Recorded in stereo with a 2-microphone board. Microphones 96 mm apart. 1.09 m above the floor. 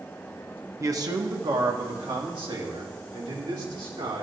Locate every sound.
0.8 s a man speaking: 30° right (ahead or behind), 0.9 m; by 4.2 s 65° right (ahead or behind), 4 m